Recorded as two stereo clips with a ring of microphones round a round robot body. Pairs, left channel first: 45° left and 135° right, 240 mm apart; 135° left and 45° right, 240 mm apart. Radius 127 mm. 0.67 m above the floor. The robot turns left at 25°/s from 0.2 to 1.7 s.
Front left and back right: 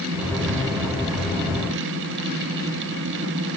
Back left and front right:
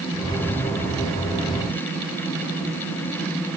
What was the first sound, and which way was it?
Only background noise.